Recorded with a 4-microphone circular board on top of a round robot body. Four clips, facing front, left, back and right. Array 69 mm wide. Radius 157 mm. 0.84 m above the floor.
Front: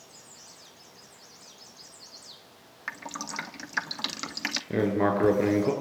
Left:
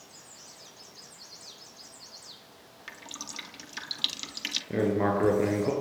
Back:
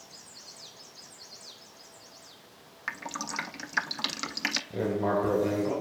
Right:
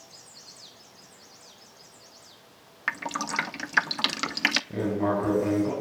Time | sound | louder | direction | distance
2.9 | dripping | right 15 dB, back 1 dB | 90° right | 0.7 m
4.7 | writing | even, front 4 dB | 25° left | 8.5 m